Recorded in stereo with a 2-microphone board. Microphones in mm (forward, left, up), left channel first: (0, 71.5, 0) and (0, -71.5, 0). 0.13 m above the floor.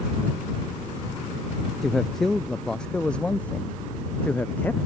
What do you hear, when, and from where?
1.8 s a man speaking: centre (ahead or behind); by 4.8 s 15° left (ahead or behind)